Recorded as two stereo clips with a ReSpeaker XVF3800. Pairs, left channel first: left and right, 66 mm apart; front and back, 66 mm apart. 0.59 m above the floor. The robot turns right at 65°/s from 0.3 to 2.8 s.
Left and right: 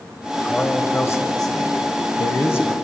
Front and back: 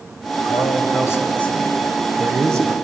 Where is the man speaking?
5° left, 3 m; by 2.7 s 155° left, 3 m.